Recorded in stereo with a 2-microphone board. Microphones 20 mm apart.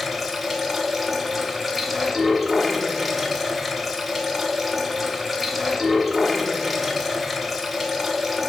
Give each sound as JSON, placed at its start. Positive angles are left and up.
{"t": 0.0, "sound": "running water", "side_deg": -5, "distance_m": 0.8}